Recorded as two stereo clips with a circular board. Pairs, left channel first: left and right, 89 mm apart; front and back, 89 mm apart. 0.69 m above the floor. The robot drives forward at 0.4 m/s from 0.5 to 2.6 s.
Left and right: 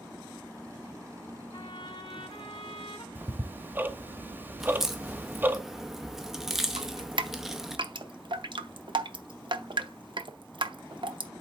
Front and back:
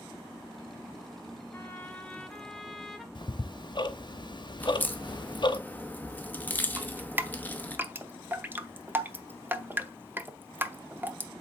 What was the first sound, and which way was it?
A trumpet, 65° left.